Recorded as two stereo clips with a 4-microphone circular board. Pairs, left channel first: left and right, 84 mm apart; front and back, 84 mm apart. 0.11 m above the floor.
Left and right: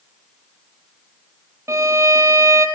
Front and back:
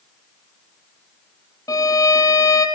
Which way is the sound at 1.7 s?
40° right.